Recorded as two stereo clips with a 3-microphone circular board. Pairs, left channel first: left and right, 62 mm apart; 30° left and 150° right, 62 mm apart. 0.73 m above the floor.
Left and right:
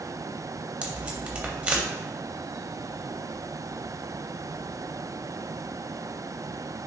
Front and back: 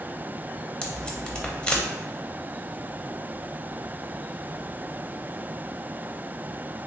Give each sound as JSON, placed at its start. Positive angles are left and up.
{"t": 0.8, "sound": "tape being pulled", "azimuth_deg": -35, "distance_m": 0.6}